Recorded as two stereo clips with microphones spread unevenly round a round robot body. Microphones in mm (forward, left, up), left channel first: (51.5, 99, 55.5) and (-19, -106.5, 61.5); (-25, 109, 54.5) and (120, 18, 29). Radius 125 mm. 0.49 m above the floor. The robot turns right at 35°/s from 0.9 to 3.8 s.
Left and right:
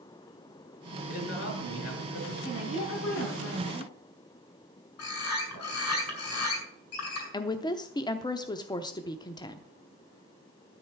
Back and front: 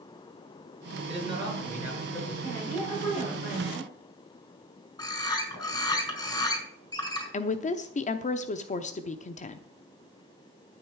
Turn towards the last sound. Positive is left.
turn(degrees=125)